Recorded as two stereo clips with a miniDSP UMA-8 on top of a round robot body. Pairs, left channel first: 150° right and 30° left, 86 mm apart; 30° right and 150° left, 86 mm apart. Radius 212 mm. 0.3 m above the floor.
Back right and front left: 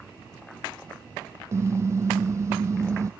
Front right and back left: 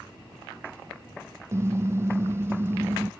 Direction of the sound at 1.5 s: 90° left.